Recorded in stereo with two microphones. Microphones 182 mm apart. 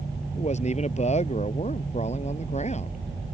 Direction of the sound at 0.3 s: 40° left (ahead or behind).